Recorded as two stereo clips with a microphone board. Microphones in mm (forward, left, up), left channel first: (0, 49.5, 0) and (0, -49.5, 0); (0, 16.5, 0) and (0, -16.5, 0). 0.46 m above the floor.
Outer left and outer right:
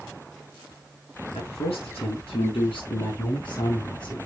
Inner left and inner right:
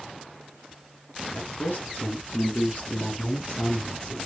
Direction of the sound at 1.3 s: 80° left.